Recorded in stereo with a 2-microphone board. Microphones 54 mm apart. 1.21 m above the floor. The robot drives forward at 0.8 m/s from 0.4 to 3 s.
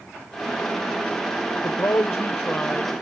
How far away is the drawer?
No drawer in this recording.